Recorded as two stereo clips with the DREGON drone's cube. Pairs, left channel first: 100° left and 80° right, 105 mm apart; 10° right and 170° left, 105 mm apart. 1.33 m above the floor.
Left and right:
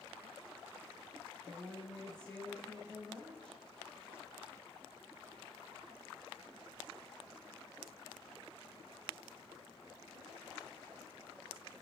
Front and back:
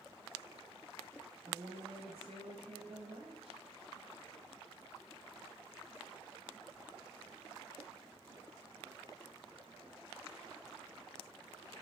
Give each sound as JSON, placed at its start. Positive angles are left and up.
{"t": 1.4, "sound": "a woman speaking", "azimuth_deg": -175, "distance_m": 7.0}